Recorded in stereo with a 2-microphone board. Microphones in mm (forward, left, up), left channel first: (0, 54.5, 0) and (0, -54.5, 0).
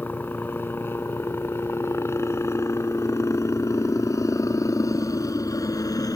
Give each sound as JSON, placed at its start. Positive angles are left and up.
{"t": 0.0, "sound": "a helicopter", "side_deg": 15}